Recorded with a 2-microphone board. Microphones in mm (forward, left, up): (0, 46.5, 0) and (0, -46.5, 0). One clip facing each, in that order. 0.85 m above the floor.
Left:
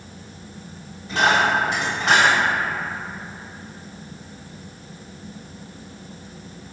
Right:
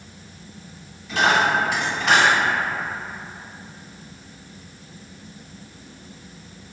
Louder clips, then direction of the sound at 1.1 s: Even; 35° left (ahead or behind).